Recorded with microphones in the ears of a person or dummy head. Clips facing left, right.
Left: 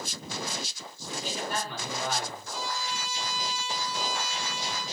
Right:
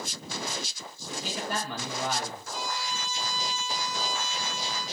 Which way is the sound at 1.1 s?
70° right (ahead or behind).